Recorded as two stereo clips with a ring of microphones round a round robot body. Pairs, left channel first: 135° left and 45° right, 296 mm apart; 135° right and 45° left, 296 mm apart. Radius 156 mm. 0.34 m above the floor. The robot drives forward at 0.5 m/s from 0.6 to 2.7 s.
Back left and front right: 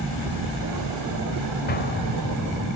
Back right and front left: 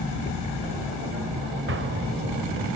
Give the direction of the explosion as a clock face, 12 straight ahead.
9 o'clock.